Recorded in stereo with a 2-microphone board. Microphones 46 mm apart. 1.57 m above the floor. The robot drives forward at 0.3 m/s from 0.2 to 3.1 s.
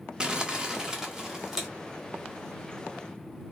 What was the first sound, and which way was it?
Crumpling, 20° right (ahead or behind).